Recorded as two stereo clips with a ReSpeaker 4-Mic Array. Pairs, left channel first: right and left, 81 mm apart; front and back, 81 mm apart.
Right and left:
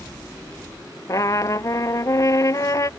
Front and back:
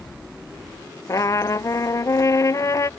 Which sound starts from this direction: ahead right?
A trumpet, at 1.1 s.